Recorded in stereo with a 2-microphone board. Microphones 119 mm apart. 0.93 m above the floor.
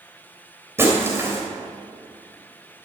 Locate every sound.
0.8 s breaking glass: 20° right (ahead or behind), 3 m